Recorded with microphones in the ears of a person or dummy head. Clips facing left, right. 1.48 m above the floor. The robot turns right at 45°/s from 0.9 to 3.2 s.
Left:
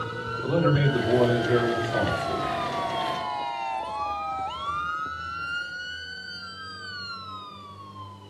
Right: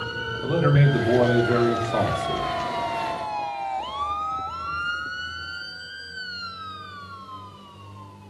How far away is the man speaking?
About 1.2 m.